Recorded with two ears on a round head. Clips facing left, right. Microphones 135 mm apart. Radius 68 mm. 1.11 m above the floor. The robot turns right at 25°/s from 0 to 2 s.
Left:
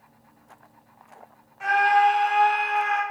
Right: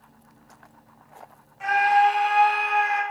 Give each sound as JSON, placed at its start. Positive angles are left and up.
{"t": 1.6, "sound": "a scream", "side_deg": 0, "distance_m": 1.9}